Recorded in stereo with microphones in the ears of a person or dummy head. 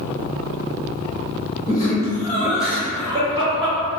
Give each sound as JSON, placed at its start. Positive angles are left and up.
{"t": 1.7, "sound": "laughter", "side_deg": 20, "distance_m": 0.8}